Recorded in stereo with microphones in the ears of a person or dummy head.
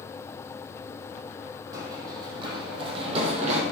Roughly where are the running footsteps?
Right.